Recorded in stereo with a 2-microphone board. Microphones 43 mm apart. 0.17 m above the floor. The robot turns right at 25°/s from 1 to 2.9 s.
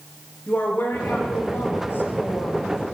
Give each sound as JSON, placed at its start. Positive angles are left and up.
{"t": 0.5, "sound": "a woman speaking", "azimuth_deg": 65, "distance_m": 4.5}